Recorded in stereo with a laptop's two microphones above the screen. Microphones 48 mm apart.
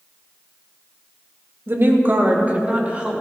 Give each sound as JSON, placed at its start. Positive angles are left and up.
{"t": 1.7, "sound": "a woman speaking", "side_deg": -50, "distance_m": 1.9}